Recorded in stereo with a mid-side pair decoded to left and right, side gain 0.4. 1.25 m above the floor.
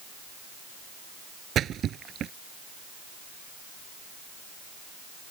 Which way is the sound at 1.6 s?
70° right.